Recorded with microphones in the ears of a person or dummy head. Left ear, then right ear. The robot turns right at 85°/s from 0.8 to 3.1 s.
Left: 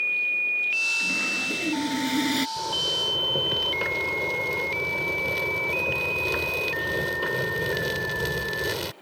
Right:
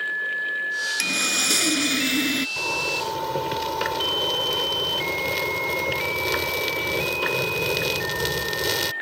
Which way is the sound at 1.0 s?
120° right.